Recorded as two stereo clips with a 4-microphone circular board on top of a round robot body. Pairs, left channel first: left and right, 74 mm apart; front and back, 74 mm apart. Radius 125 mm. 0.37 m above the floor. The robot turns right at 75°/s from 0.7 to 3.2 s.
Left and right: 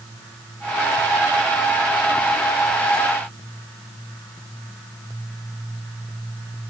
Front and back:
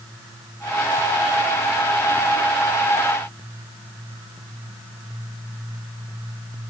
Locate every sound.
Only background noise.